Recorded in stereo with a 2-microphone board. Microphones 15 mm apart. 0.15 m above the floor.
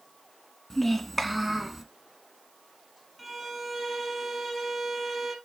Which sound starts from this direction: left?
A child speaking, at 0.7 s.